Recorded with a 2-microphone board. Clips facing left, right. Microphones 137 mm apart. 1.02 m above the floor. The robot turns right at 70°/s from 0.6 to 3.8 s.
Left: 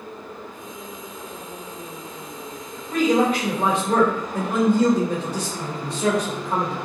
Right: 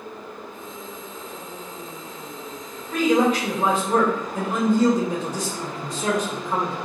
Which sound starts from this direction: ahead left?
A man speaking, at 2.9 s.